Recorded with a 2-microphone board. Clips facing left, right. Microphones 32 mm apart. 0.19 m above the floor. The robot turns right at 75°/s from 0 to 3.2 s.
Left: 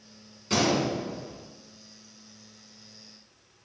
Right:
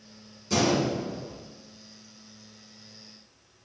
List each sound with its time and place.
0.5 s a gunshot: 50° left (ahead or behind), 1.0 m; by 1.5 s centre (ahead or behind), 1.0 m